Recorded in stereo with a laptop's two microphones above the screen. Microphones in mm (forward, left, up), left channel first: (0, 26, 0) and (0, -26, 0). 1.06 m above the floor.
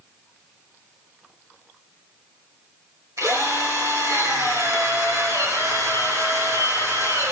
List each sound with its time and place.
3.2 s a drill: 85° right, 6 m